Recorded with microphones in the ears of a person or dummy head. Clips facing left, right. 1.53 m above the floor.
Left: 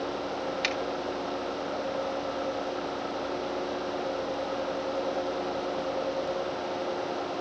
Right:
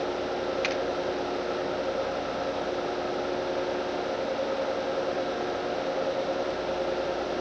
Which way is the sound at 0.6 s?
15° left (ahead or behind).